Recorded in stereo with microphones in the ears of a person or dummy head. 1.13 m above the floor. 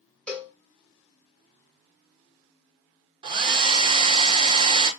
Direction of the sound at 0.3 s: 5° left (ahead or behind).